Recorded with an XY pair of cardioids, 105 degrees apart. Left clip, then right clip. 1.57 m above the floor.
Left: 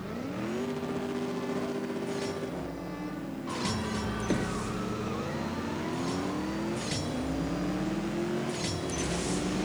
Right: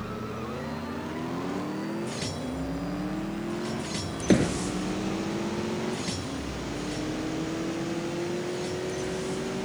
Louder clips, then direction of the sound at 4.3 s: Right 10 dB; 55° right.